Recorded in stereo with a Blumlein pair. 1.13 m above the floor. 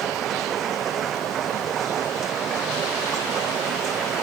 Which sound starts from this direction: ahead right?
A machine running, at 0.0 s.